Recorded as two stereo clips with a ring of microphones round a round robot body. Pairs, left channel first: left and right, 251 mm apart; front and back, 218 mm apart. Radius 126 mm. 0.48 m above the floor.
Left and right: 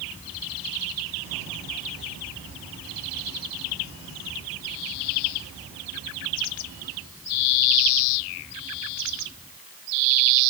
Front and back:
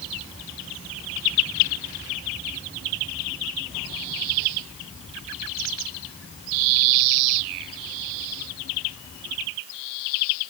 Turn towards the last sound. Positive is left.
No sound to turn to.